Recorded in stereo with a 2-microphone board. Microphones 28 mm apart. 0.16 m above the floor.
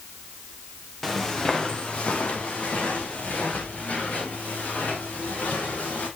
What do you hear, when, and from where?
1.0 s footsteps: 15° left (ahead or behind), 2 m; by 6.1 s 80° left, 7 m